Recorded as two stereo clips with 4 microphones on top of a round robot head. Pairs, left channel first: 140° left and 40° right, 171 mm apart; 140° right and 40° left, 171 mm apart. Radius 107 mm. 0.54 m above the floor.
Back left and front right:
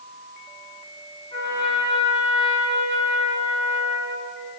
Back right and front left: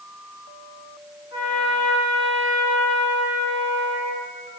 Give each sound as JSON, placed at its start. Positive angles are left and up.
{"t": 1.3, "sound": "a trumpet", "azimuth_deg": -160, "distance_m": 5.5}